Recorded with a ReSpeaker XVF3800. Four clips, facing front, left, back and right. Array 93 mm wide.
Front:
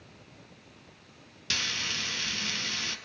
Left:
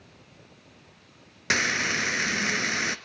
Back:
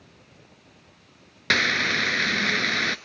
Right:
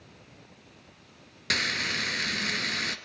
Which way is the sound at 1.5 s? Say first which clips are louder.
Left 4 dB, back 13 dB; 160° left.